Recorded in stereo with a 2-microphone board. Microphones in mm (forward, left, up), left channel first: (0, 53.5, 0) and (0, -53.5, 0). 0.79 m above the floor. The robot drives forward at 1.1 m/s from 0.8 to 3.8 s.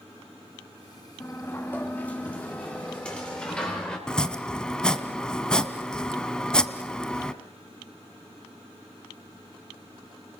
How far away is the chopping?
About 1.0 m.